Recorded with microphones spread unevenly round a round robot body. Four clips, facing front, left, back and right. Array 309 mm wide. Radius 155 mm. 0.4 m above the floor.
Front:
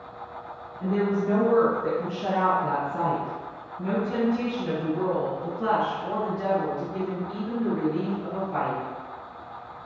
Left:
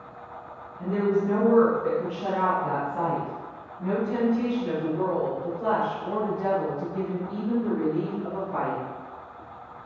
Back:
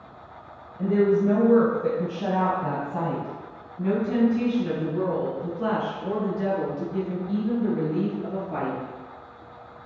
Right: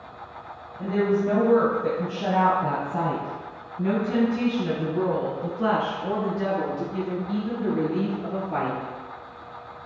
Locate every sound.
0.8 s a woman speaking: 160° right, 1.8 m; by 8.8 s 105° right, 6.5 m